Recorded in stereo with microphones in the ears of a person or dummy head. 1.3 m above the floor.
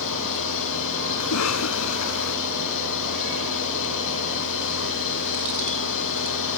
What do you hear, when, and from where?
0.0 s a machine running: 65° left (ahead or behind)
1.2 s a cough: 75° left (ahead or behind)